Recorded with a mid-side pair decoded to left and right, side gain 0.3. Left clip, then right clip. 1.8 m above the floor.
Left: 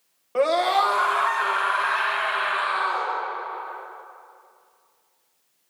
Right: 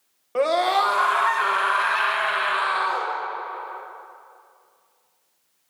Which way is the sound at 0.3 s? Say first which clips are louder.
Even; 5° right.